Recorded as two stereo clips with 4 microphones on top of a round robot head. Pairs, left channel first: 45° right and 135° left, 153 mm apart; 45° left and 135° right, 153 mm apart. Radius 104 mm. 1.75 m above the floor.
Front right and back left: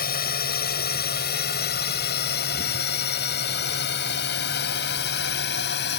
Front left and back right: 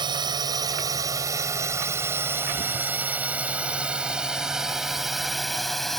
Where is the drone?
70° right; by 6.0 s 45° right.